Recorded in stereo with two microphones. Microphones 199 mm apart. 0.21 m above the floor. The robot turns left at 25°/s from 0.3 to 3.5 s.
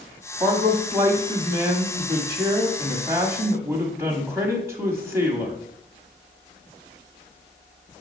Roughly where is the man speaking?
Right.